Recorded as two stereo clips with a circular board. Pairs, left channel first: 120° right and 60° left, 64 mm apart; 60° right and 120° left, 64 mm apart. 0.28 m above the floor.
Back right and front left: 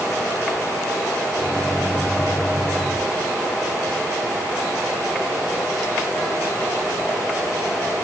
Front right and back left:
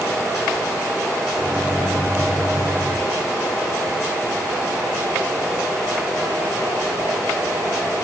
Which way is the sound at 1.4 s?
165° left.